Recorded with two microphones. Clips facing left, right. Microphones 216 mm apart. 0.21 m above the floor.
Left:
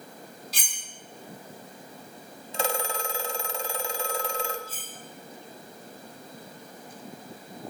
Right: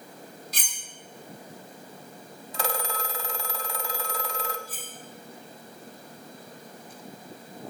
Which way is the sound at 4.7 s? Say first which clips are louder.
Right 2 dB; 25° left (ahead or behind).